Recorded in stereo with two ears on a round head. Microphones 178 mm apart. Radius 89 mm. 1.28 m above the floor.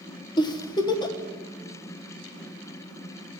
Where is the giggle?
25° left (ahead or behind), 1.1 m.